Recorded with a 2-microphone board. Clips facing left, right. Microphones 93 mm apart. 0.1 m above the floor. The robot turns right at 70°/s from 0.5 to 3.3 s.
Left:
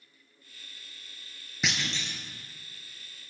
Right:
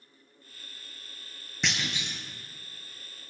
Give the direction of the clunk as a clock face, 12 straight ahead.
6 o'clock.